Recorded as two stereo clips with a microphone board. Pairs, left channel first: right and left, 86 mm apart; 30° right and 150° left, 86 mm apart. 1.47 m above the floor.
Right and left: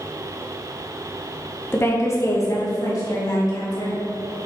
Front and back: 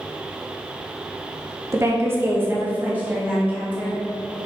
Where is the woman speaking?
155° right, 1.4 m; by 4.0 s 135° right, 4 m.